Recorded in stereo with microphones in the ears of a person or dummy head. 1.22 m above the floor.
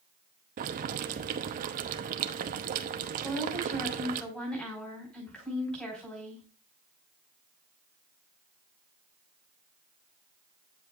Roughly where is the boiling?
Right.